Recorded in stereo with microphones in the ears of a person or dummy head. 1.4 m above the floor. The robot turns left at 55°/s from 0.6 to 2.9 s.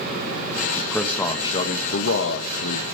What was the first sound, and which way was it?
A man speaking, 170° right.